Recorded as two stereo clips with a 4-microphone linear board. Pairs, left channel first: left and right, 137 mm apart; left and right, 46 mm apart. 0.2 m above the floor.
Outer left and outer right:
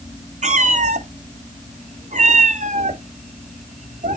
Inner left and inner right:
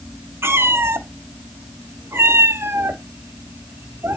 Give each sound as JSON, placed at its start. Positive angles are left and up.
{"t": 0.4, "sound": "a cat meowing", "side_deg": -60, "distance_m": 1.0}